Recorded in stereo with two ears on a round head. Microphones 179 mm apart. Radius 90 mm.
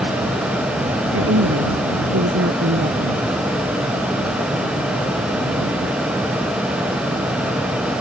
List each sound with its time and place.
1.1 s a woman speaking: 65° right (ahead or behind)